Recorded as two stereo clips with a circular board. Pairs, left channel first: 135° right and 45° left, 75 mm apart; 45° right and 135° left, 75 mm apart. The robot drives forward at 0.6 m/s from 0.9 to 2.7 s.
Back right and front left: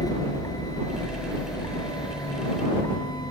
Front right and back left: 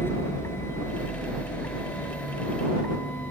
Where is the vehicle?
105° right; by 3.3 s 110° right.